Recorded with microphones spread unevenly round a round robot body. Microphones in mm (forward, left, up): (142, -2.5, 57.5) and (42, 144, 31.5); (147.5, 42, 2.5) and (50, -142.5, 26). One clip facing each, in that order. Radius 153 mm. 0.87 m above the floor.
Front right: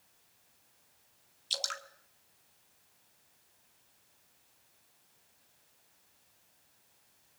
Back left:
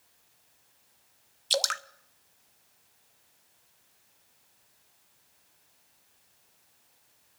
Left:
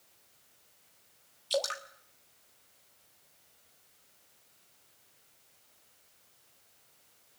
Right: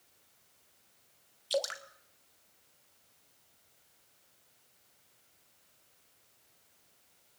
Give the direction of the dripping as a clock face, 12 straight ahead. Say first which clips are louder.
Back left 14 dB, left 1 dB; 7 o'clock.